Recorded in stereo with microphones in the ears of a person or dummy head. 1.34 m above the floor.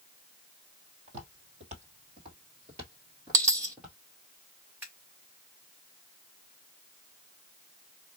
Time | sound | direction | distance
1.1 | footsteps | 45° right (ahead or behind) | 1.9 m
3.3 | a dropped coin | 20° right (ahead or behind) | 1.1 m
4.8 | scissors | 15° right (ahead or behind) | 1.8 m